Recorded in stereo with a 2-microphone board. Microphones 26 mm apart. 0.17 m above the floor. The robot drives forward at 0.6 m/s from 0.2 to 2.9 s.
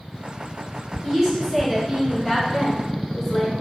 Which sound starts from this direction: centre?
A woman speaking, at 1.0 s.